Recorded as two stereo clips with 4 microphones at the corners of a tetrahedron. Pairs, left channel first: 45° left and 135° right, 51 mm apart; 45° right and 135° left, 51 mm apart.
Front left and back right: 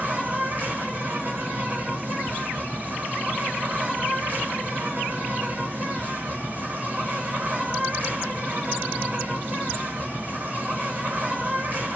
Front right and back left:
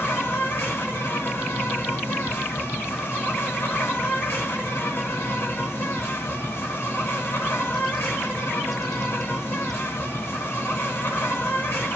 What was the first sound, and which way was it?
An insect, 80° right.